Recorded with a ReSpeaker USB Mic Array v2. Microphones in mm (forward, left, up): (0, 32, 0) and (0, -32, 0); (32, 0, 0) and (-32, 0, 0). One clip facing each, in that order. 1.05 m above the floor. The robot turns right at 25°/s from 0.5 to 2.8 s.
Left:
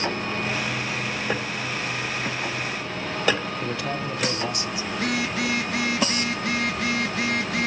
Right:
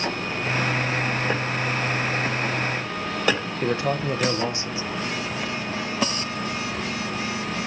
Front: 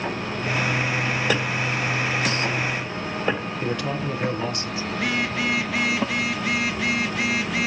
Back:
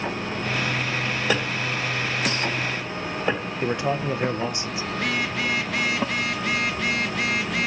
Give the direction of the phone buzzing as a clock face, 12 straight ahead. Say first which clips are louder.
Left 6 dB, front 1 dB; 9 o'clock.